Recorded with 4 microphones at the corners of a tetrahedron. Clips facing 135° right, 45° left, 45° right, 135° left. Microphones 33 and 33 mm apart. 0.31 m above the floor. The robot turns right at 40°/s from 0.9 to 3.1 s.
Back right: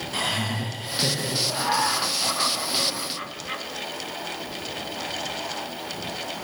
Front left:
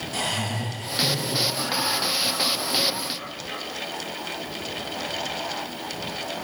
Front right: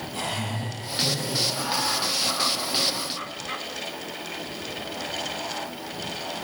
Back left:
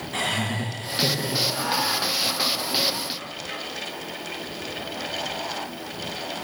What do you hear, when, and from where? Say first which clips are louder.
0.1 s laughter: back right 1 dB, back left 5 dB; 155° left, 3.5 m; by 1.4 s 175° left, 3.5 m
1.5 s laughter: back right 2 dB, back left 2 dB; 155° right, 3 m; by 3.6 s 90° right, 3 m